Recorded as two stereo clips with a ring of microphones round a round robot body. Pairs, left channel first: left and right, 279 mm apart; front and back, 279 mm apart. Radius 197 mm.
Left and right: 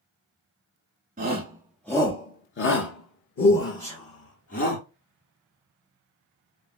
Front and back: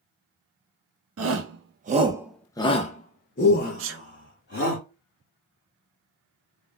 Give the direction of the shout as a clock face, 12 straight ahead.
5 o'clock.